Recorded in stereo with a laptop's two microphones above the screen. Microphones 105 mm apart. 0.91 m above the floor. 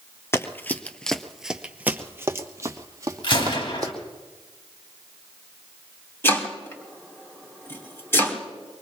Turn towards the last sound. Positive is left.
turn(degrees=25)  # may be behind; listen again after turning